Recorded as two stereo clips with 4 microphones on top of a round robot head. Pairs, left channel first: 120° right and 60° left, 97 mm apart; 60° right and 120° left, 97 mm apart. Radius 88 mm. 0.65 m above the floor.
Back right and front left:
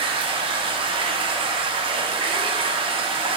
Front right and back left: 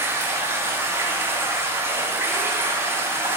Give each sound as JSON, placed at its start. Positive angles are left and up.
{"t": 0.0, "sound": "running water", "azimuth_deg": 60, "distance_m": 0.9}